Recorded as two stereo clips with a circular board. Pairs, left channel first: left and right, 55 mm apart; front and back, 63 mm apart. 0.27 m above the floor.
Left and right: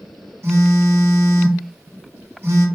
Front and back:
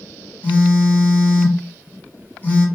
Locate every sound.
0.4 s a phone buzzing: 60° right, 1.2 m